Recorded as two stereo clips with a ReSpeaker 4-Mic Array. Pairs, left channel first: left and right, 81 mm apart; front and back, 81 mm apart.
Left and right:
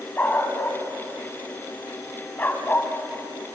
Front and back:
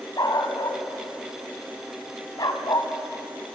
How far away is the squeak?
No squeak in this recording.